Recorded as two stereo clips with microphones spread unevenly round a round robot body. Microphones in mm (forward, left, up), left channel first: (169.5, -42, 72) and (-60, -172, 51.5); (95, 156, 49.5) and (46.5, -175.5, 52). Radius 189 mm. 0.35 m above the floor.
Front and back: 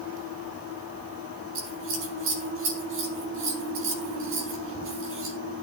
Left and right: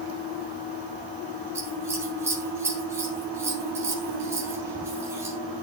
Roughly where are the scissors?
Behind.